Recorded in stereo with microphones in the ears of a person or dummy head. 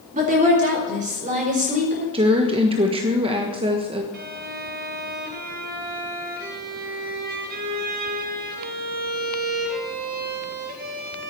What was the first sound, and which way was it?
A woman speaking, 45° right (ahead or behind).